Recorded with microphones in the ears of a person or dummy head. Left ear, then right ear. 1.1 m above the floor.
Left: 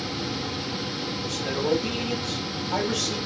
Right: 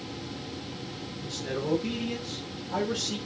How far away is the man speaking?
About 5.5 m.